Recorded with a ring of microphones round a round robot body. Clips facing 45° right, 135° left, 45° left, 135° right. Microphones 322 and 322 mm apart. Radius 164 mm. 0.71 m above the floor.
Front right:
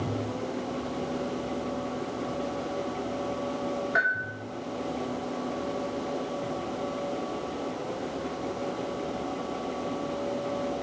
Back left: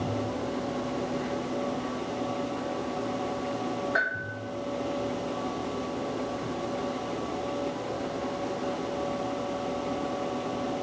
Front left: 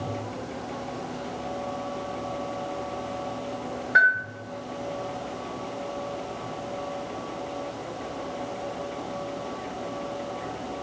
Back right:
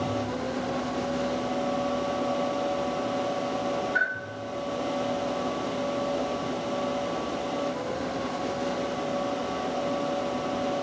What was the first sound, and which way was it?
A bell, 45° left.